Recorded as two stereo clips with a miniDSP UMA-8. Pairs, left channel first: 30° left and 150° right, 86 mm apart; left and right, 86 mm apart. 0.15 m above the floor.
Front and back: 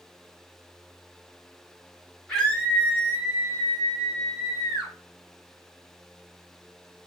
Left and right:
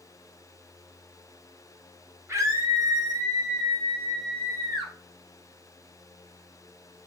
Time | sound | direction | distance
2.3 | a scream | 55° right | 1.6 m